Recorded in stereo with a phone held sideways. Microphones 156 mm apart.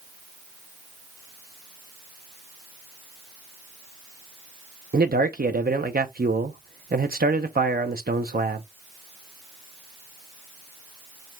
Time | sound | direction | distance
4.9 | a man speaking | 75° right (ahead or behind) | 0.6 m